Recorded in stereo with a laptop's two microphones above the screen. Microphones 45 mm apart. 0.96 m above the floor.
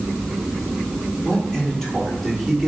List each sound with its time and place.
1.2 s a man speaking: 10° left (ahead or behind), 3.5 m; by 2.7 s centre (ahead or behind), 3 m